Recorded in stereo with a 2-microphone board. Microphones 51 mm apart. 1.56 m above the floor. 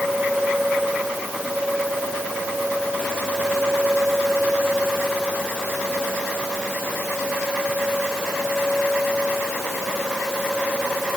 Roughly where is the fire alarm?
No fire alarm in this recording.